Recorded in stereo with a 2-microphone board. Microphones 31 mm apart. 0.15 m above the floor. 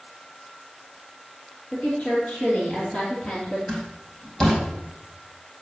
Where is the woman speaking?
50° left (ahead or behind), 3 m; by 3.6 s 25° left (ahead or behind), 3 m.